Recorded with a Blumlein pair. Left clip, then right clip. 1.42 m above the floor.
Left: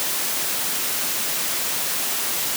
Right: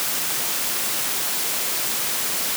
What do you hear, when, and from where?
Only background noise.